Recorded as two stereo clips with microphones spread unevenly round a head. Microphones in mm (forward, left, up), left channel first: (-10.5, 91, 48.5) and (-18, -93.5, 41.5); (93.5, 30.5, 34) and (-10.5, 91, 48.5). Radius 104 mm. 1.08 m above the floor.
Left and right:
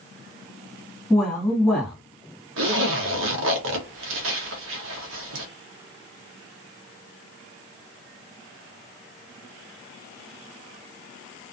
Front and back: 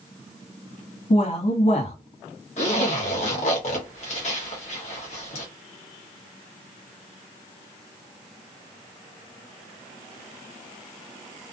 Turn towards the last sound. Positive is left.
turn(degrees=-75)